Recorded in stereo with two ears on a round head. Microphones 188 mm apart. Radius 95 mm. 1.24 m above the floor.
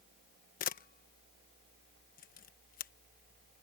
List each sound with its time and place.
0.6 s a camera shutter: 45° left (ahead or behind)